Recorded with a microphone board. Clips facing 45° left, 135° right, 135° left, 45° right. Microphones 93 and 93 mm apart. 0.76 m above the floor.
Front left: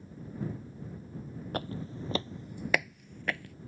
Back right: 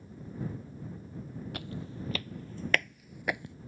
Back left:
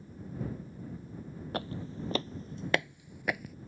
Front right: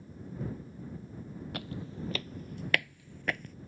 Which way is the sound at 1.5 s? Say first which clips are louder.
Front left 8 dB, back left 5 dB; 85° left.